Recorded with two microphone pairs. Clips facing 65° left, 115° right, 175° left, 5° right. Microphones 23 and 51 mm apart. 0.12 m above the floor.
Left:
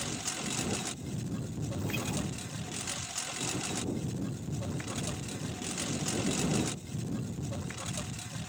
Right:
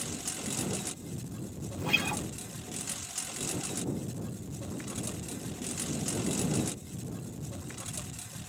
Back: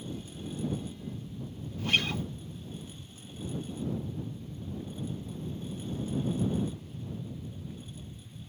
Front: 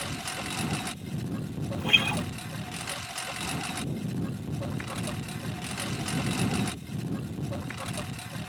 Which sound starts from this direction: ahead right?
A guitar, at 1.8 s.